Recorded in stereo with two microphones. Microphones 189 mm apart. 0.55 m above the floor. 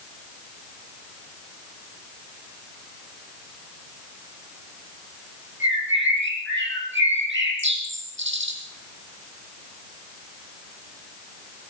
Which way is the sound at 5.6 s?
85° right.